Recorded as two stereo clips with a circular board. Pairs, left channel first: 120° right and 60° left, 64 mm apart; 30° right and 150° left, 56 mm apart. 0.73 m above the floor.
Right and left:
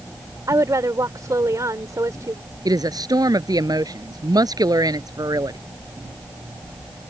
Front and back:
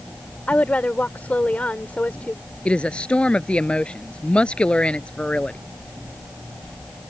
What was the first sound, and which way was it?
A woman speaking, 35° left.